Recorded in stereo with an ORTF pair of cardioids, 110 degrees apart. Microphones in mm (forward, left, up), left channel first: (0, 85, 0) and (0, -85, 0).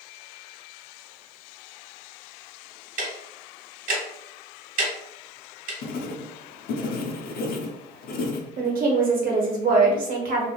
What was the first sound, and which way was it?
Ticking, 50° right.